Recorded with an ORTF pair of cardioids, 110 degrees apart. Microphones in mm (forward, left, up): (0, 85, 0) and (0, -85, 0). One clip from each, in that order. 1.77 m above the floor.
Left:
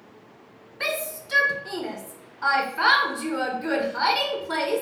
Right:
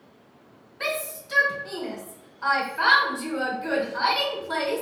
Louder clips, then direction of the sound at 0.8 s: Left 1 dB; 15° left.